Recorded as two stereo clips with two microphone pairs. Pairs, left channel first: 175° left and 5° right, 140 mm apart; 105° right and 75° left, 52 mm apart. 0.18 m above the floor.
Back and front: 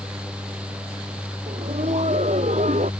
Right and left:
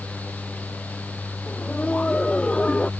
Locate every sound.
1.5 s laughter: 40° right; by 2.9 s 30° right